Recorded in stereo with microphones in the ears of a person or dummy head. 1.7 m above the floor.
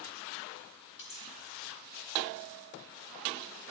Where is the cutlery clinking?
25° left (ahead or behind), 1.1 m.